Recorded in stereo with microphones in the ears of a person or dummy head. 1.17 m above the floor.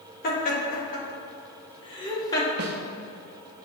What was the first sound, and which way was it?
Laughter, 50° left (ahead or behind).